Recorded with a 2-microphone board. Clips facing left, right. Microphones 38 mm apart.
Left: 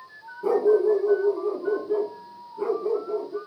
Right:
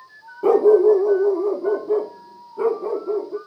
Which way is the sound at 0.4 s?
60° right (ahead or behind).